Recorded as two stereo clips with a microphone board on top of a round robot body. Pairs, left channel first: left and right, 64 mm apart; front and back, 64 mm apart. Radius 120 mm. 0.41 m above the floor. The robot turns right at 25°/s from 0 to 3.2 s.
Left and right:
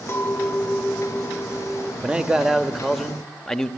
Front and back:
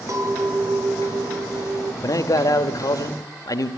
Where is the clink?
140° left, 1.3 m; by 1.9 s 175° right, 1.3 m.